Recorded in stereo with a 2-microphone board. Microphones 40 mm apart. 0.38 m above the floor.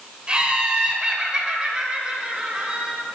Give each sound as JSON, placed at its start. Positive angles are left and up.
{"t": 0.3, "sound": "laughter", "side_deg": -25, "distance_m": 1.5}